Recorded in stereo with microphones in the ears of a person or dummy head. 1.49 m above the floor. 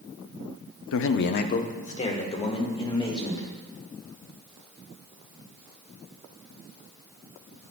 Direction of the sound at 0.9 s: 75° left (ahead or behind).